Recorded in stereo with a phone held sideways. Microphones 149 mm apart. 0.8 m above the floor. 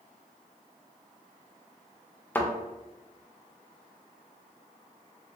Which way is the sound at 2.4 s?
10° left (ahead or behind).